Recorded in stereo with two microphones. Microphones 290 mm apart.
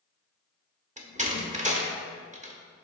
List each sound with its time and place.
1.0 s a door slam: 25° right (ahead or behind), 0.9 m